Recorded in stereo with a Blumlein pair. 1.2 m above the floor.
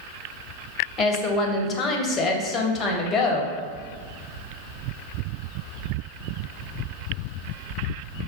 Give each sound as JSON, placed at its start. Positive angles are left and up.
{"t": 1.0, "sound": "a woman speaking", "azimuth_deg": 25, "distance_m": 0.7}